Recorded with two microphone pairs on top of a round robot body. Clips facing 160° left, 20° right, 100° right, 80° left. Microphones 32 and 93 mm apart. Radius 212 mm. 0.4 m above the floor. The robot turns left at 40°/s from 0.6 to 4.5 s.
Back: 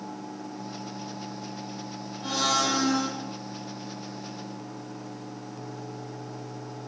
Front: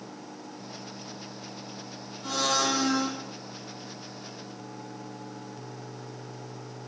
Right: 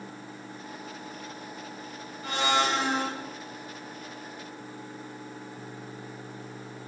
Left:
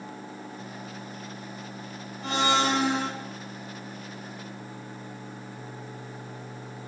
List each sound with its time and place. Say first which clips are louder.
2.2 s a blender: back 1 dB, left 2 dB; 105° left, 2 m; by 3.1 s 70° left, 2 m